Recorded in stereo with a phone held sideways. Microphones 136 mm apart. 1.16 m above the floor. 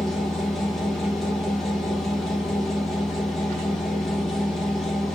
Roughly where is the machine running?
Centre.